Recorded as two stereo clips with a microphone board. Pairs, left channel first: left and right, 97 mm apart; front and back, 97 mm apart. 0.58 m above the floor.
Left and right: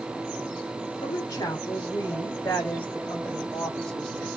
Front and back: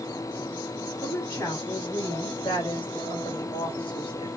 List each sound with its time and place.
1.0 s a woman speaking: 55° left, 2.0 m; by 4.3 s 5° left, 3.5 m